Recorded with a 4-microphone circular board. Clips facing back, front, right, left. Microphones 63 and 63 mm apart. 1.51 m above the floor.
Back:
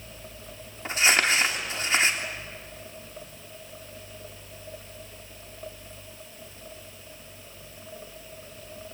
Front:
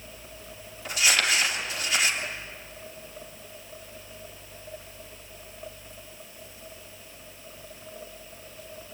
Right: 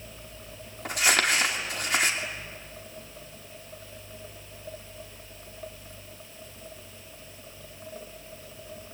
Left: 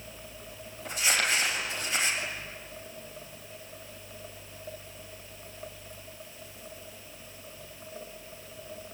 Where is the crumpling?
120° right, 2.5 m.